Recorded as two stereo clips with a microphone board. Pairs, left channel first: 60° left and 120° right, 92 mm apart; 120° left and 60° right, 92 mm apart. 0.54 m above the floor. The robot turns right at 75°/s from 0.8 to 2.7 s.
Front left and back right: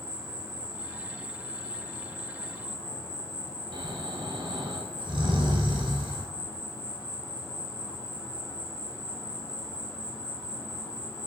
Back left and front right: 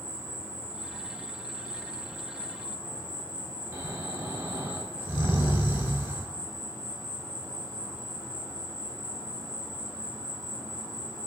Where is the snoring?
125° right, 0.8 m.